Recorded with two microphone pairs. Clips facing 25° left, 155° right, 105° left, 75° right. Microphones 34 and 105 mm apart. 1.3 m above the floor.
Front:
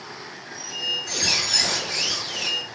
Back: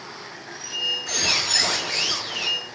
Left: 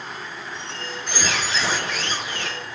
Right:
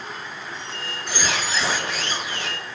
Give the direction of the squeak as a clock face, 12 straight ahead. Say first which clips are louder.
Back 1 dB, left 1 dB; 5 o'clock.